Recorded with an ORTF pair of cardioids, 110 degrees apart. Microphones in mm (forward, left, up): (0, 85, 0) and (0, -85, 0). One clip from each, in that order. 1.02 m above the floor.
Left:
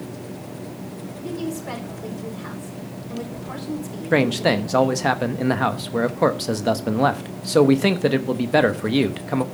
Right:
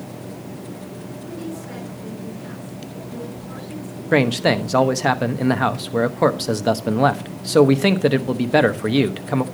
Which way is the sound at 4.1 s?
5° right.